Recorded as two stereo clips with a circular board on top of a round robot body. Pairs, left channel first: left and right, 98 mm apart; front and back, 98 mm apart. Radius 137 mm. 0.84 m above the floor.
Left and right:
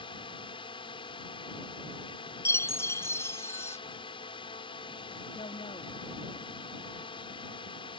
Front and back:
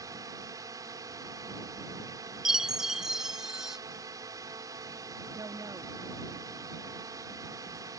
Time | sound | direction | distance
0.0 | a drone | 125° left | ?
2.5 | a chime | 100° left | ?
5.3 | a woman speaking | 125° left | ?